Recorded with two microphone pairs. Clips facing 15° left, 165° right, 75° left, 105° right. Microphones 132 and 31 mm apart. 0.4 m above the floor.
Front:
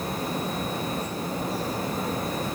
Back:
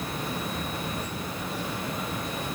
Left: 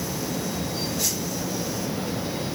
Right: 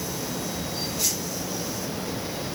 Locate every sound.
Only background noise.